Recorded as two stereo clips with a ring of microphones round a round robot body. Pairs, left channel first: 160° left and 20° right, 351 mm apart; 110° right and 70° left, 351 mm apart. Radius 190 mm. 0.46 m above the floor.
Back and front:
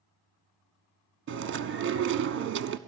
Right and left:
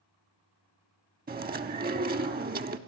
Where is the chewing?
15° left, 1.0 m.